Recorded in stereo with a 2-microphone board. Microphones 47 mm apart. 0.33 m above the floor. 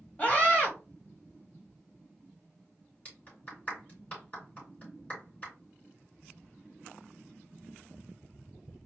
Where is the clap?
25° left (ahead or behind), 3.5 m.